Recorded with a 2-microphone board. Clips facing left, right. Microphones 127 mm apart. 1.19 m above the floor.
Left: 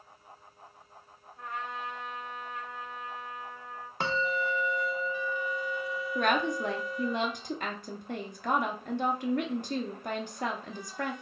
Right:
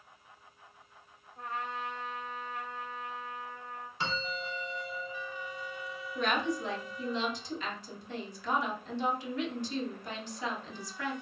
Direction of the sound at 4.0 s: 55° left (ahead or behind).